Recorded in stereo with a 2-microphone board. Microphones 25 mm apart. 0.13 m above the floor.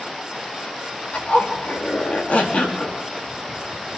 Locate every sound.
1.1 s a zipper: 85° left, 5 m